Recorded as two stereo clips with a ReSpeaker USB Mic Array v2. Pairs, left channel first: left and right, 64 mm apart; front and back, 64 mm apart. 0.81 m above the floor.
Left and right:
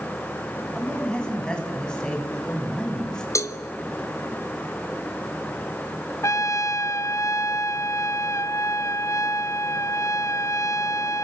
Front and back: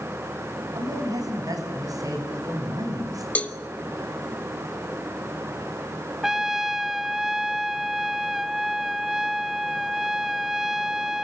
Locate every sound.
0.7 s a man speaking: 165° left, 8 m; by 3.2 s 170° left, 6 m
3.4 s a cowbell: 65° left, 1.6 m
6.2 s a trumpet: 95° left, 0.9 m